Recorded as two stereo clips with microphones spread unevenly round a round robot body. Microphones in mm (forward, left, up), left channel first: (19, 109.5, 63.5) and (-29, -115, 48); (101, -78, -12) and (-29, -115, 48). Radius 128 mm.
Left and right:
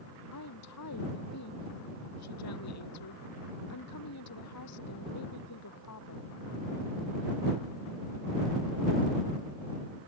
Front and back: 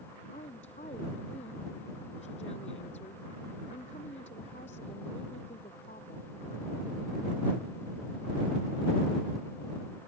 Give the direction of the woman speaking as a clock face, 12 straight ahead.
9 o'clock.